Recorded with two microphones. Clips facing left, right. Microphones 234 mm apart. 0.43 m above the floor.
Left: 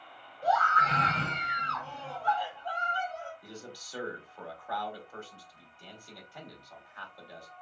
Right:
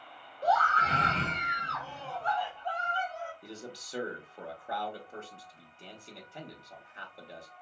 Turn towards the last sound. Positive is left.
turn(degrees=-25)  # may be behind; listen again after turning